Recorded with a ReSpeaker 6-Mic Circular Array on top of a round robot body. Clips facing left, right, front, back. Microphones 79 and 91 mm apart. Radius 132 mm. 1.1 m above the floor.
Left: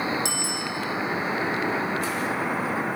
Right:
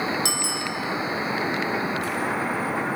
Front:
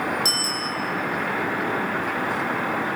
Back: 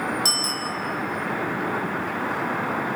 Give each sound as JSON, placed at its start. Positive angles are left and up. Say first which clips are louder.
{"t": 0.2, "sound": "a bicycle bell", "louder": "right 1 dB, even", "azimuth_deg": -125, "distance_m": 5.0}